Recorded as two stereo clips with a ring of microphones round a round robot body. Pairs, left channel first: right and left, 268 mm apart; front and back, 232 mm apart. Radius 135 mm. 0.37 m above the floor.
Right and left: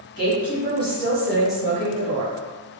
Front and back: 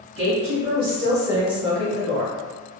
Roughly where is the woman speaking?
Behind right.